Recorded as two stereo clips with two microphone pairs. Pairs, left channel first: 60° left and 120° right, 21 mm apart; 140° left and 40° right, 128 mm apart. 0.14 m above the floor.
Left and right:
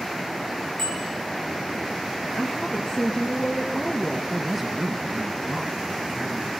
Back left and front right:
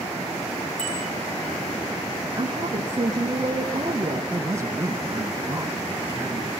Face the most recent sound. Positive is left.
turn(degrees=-50)